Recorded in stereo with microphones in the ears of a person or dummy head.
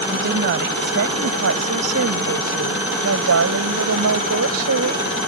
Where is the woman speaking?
60° right (ahead or behind); by 5.1 s 90° right.